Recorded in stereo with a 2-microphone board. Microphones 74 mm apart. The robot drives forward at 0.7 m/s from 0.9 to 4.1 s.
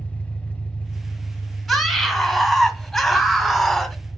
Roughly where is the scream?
Centre.